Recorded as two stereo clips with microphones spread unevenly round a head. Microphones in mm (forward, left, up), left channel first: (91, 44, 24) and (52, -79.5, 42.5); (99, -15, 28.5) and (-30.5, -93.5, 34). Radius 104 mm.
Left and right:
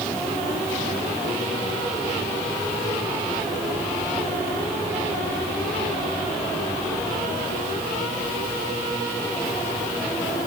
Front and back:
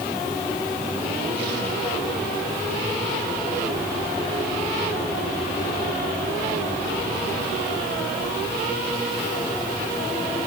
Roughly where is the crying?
I don't hear crying.